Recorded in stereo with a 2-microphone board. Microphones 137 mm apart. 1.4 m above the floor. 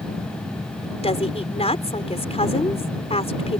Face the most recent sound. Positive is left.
turn(degrees=50)  # may be behind; listen again after turning